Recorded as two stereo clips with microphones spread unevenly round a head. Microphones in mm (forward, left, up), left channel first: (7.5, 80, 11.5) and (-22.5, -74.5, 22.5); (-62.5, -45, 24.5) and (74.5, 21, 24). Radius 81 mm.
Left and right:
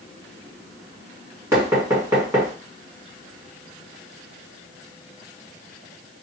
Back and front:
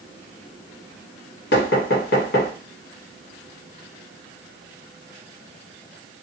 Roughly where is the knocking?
Behind.